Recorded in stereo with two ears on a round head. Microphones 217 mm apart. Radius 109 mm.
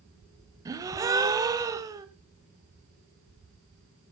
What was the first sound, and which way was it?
A gasp, 15° right (ahead or behind).